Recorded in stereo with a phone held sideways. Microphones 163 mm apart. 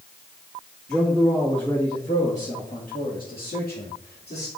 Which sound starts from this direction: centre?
A man speaking, at 0.9 s.